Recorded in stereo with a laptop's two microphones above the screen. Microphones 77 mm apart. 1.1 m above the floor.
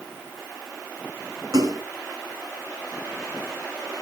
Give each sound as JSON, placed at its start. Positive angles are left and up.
{"t": 1.5, "sound": "a splash", "side_deg": -50, "distance_m": 5.5}